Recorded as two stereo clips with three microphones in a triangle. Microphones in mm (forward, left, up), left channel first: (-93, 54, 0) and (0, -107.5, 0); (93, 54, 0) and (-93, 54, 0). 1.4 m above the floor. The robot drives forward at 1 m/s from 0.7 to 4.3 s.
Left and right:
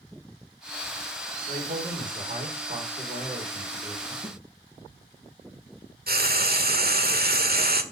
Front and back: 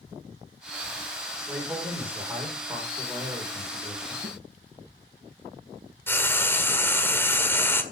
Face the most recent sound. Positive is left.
turn(degrees=-75)